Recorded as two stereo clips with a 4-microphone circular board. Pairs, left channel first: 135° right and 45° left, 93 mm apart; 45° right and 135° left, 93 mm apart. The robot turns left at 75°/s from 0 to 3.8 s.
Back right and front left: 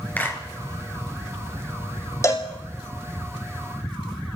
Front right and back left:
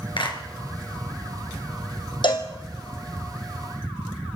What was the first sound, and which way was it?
A clap, 65° right.